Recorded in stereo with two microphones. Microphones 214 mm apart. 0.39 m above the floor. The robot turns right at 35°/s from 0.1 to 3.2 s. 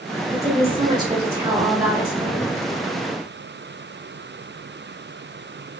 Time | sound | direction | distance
0.3 | a woman speaking | 60° right | 1.4 m